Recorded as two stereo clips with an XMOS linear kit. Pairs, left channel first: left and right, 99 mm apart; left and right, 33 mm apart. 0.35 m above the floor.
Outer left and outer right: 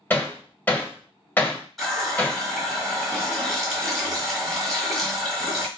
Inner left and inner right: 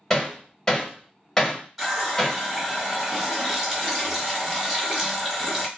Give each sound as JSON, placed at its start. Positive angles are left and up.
{"t": 0.1, "sound": "hammering", "side_deg": 15, "distance_m": 1.2}
{"t": 1.8, "sound": "a running tap", "side_deg": 0, "distance_m": 1.3}